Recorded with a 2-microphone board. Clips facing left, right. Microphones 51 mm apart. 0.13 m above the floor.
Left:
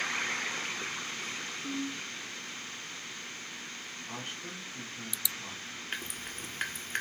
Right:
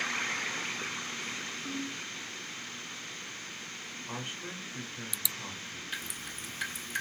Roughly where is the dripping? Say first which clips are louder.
Left 2 dB; left.